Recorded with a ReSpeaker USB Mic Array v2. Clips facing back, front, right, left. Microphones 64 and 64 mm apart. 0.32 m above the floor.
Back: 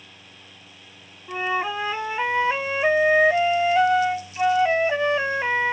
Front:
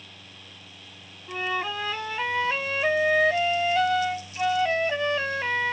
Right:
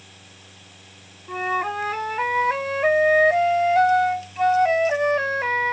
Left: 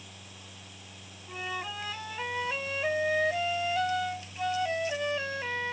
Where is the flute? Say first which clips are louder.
Back 4 dB, right 12 dB; 115° right.